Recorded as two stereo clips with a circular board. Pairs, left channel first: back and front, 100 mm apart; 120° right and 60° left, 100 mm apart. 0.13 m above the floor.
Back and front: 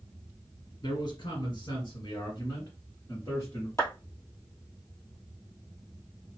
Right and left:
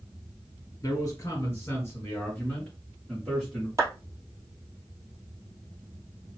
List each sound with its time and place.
0.8 s a man speaking: 165° right, 2.5 m; by 3.7 s 135° left, 2.0 m
3.8 s a clap: 115° left, 2.5 m